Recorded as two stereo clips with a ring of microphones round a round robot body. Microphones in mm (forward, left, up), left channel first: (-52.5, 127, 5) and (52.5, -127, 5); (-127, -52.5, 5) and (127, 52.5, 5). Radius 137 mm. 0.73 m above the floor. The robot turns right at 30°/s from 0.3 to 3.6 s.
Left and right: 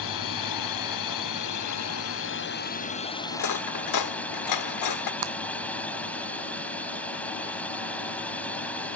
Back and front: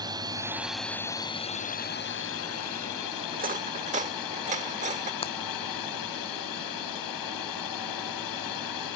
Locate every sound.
0.0 s a drone: 100° left; by 9.0 s 160° right
3.3 s cutlery clinking: 80° left; by 5.1 s 90° left
5.2 s breaking glass: 85° right